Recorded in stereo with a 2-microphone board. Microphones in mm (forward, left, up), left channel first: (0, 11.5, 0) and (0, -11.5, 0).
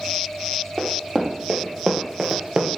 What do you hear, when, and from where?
0.8 s running footsteps: 20° right (ahead or behind), 3 m; by 2.8 s 45° right (ahead or behind), 1.5 m